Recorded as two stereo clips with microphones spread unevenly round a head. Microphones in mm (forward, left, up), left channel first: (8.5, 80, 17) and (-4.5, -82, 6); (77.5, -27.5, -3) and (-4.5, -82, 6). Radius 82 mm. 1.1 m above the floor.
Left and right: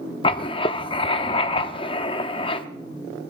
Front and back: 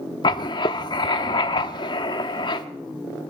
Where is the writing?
55° left, 0.7 m.